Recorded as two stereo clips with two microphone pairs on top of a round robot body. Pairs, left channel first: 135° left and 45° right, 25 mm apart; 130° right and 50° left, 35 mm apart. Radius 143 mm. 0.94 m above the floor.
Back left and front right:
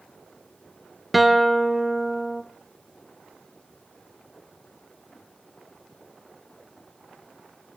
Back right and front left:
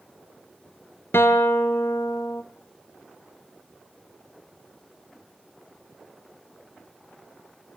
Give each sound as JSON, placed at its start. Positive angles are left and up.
{"t": 1.1, "sound": "a guitar", "azimuth_deg": -125, "distance_m": 0.7}